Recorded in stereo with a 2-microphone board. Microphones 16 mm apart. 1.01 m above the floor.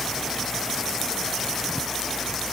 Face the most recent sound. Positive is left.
No sound to turn to.